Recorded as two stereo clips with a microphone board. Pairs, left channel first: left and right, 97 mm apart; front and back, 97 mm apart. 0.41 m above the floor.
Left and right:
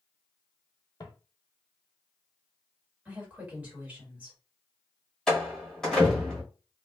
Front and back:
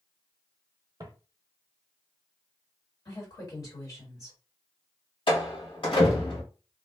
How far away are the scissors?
No scissors in this recording.